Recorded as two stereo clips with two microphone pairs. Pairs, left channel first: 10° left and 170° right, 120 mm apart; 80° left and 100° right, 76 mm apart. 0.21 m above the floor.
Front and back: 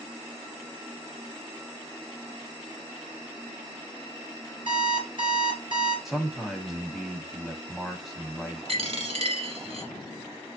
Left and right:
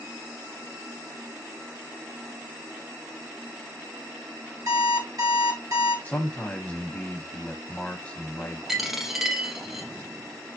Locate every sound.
4.7 s an alarm clock: 125° right, 2.5 m
6.0 s a man speaking: 100° left, 1.0 m
8.7 s a dropped coin: 175° left, 0.8 m